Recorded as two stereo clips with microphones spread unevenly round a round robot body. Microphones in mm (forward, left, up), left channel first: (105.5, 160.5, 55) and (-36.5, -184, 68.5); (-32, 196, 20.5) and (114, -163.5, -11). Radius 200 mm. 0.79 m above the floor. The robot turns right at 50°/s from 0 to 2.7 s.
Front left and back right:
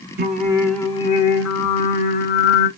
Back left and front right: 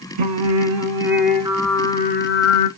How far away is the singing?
About 1.6 m.